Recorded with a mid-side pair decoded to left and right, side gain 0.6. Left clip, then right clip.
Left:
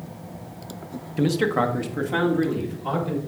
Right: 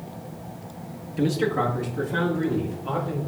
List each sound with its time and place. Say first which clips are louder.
1.2 s a man speaking: left 2 dB; 15° left, 0.9 m; by 3.2 s 70° left, 3.5 m